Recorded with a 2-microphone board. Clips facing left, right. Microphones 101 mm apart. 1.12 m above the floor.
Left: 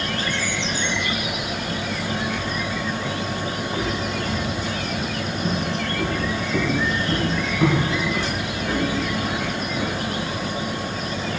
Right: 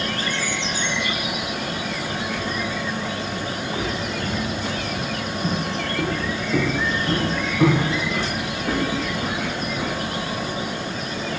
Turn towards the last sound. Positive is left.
turn(degrees=-45)  # may be behind; listen again after turning